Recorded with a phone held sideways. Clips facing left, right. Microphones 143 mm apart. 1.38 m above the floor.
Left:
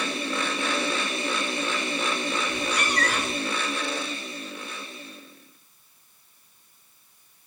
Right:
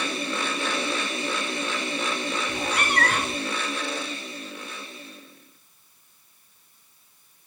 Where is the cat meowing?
55° right (ahead or behind), 1.6 m.